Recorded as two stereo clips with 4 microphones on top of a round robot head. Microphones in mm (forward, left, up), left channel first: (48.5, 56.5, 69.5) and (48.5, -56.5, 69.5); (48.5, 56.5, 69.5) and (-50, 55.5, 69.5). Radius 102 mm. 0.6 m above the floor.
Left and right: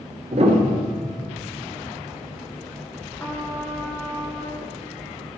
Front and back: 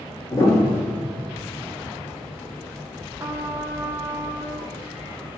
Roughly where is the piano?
Ahead right.